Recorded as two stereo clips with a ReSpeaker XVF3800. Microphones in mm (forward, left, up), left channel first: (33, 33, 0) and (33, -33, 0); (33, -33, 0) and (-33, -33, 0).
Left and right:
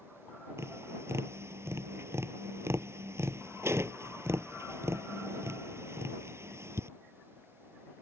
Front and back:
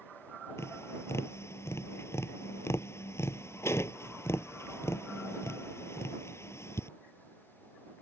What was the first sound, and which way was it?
Tapping, 45° right.